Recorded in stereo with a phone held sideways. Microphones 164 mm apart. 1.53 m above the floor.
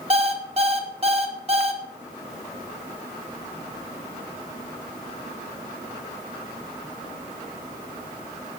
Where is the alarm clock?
40° right (ahead or behind), 1.3 m.